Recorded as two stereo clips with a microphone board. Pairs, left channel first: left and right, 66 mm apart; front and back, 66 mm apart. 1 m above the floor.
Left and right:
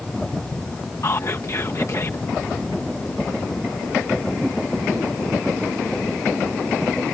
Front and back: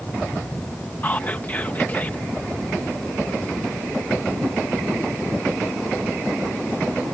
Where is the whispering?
55° left.